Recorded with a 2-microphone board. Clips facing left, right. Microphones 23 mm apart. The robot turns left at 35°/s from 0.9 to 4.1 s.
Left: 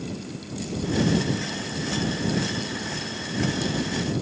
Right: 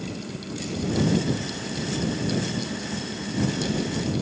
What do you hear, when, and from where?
Only background noise.